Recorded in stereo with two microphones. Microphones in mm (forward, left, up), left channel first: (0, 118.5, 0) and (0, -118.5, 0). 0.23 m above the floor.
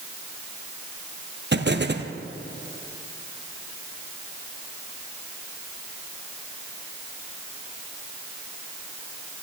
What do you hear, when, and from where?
1.5 s an explosion: 50° right (ahead or behind), 1.5 m